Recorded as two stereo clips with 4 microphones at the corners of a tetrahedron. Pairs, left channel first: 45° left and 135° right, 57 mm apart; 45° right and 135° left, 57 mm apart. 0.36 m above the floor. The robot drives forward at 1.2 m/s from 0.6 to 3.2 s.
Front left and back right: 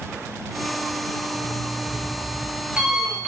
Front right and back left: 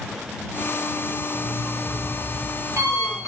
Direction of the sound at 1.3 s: 135° left.